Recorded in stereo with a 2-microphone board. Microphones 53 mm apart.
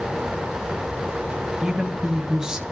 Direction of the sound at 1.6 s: 15° right (ahead or behind).